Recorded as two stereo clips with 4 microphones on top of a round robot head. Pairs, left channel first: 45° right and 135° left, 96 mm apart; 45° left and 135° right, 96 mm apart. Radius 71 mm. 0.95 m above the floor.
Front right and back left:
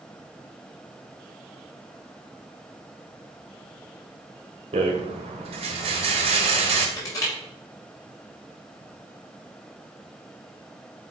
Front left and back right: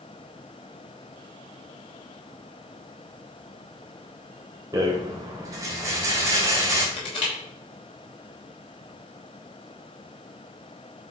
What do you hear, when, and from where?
4.7 s a rattle: 165° left, 1.7 m
7.0 s crushing: 10° left, 5 m